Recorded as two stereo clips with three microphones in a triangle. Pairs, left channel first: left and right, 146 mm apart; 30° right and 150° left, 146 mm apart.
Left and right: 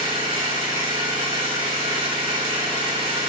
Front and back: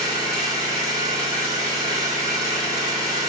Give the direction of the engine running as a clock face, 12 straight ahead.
5 o'clock.